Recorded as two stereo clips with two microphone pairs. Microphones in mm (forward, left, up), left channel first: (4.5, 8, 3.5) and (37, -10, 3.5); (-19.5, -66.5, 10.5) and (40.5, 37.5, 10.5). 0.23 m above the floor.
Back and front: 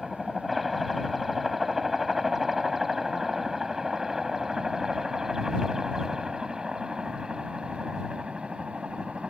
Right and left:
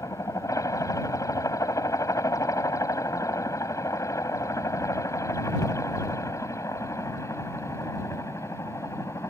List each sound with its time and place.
0.0 s a helicopter: 115° right; by 9.3 s 75° right